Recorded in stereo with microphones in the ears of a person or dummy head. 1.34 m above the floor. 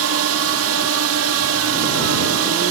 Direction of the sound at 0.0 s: 65° right (ahead or behind).